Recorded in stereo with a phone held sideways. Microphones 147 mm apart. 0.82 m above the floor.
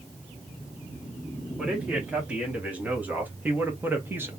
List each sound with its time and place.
1.6 s a man speaking: 10° right (ahead or behind), 2 m; by 4.3 s 15° right (ahead or behind), 1.0 m